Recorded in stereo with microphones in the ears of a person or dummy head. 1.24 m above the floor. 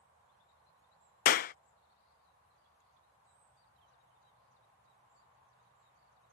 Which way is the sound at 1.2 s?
50° left (ahead or behind).